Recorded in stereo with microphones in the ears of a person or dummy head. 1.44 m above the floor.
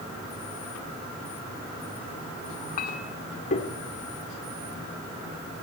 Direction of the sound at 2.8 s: 40° left (ahead or behind).